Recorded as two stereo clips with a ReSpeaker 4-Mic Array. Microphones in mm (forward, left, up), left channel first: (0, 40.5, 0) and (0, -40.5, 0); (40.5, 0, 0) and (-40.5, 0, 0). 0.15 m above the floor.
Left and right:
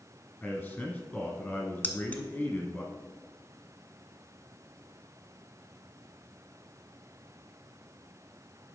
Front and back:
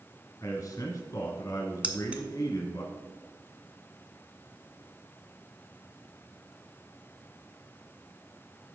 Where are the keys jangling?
125° left, 0.9 m.